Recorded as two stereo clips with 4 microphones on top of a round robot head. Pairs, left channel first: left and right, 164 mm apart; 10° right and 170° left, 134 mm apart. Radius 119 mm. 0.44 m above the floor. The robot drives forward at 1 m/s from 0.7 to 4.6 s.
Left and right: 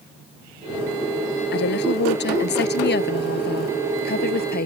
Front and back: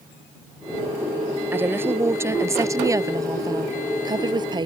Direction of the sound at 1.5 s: 95° left.